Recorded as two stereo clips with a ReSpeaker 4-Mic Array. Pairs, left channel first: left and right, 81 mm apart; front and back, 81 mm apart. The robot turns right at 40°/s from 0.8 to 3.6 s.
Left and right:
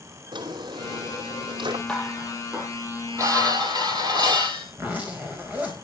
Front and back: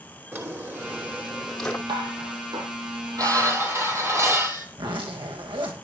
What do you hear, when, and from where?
0.3 s a drawer: 115° right, 2.5 m; by 1.8 s 75° right, 2.5 m
1.9 s dishes clattering: 170° left, 5 m; by 4.7 s 120° right, 5 m
4.7 s a zipper: 160° right, 4.5 m